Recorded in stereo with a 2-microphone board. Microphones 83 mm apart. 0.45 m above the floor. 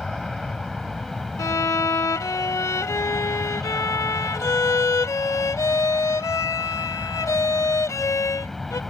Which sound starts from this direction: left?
A violin, at 1.4 s.